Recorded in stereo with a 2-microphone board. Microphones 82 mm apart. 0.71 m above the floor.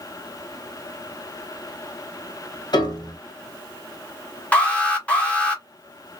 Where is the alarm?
15° left (ahead or behind), 1.3 m.